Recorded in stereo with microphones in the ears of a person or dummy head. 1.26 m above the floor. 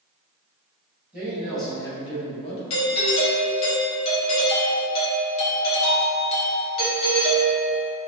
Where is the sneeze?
I don't hear a sneeze.